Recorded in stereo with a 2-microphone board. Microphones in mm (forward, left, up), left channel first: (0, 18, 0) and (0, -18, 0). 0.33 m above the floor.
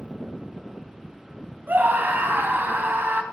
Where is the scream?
60° right (ahead or behind), 2.5 m.